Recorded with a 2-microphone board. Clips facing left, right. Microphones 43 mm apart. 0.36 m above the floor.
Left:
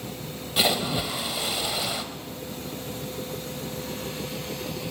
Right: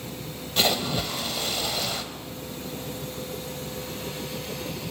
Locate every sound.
0.6 s a splash: 10° left (ahead or behind), 2.0 m